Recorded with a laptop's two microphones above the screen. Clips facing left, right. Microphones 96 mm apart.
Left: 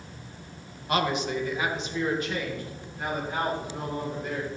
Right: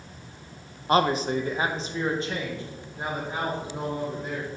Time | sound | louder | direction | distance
0.9 | a man speaking | right 4 dB | 35° right (ahead or behind) | 0.5 m